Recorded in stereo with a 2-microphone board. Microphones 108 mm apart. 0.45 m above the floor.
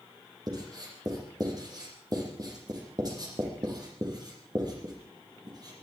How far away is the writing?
About 5 m.